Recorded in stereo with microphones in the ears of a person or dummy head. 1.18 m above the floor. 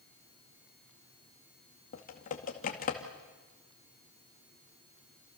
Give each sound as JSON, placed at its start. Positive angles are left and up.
{"t": 1.9, "sound": "typing on a keyboard", "side_deg": 40, "distance_m": 2.5}